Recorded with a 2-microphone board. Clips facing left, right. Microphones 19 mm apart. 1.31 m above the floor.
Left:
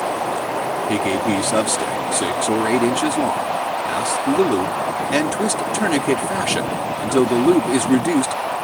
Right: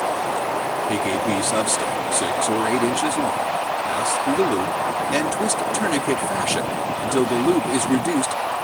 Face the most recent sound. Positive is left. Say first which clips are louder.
# left 3 dB
turn(degrees=15)  # may be behind; listen again after turning